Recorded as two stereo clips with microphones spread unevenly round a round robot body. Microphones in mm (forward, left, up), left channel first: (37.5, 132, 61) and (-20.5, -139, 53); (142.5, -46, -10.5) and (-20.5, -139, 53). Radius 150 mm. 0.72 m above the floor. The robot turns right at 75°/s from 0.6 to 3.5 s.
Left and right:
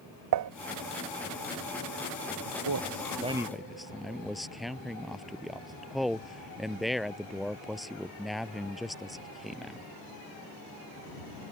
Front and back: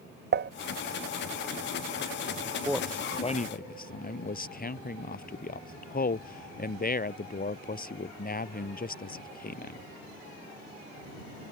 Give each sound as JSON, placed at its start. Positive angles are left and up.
{"t": 0.3, "sound": "dishes clattering", "azimuth_deg": -105}
{"t": 2.5, "sound": "a man speaking", "azimuth_deg": -90}